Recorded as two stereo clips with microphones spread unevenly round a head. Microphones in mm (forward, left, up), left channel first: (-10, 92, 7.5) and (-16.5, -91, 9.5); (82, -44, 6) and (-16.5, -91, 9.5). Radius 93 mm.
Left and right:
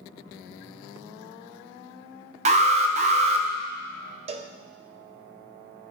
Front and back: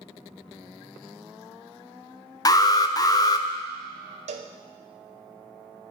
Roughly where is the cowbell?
Behind right.